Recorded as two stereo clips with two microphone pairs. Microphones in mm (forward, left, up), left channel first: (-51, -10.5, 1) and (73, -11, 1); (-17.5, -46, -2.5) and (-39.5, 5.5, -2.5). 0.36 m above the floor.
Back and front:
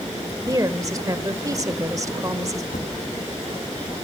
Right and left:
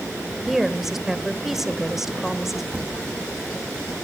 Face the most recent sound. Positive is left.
turn(degrees=180)